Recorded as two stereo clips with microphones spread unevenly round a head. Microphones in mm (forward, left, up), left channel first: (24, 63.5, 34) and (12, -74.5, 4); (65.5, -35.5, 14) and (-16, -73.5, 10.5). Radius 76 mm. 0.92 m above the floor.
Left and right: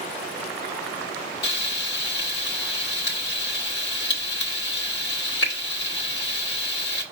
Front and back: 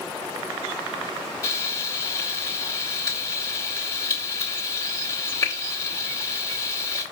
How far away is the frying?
About 1.2 m.